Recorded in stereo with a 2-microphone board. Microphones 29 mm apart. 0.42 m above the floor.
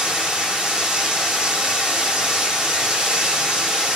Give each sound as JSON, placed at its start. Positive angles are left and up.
{"t": 0.0, "sound": "running water", "side_deg": -25, "distance_m": 1.5}